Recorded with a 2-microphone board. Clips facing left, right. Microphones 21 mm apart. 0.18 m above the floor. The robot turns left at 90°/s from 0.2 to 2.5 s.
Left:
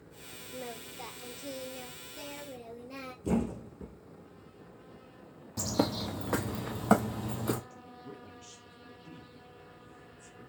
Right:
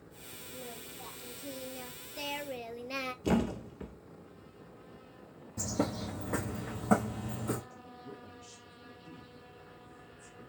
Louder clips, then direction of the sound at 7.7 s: Even; 35° left (ahead or behind).